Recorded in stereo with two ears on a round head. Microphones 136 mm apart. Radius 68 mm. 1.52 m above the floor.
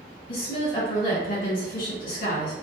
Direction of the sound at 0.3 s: 60° left (ahead or behind).